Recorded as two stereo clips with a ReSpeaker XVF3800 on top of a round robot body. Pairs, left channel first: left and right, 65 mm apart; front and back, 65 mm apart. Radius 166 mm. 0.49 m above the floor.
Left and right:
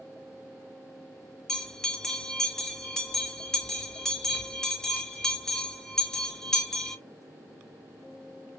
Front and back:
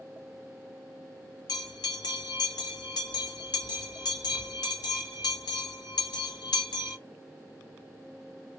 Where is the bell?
10° left, 0.8 m.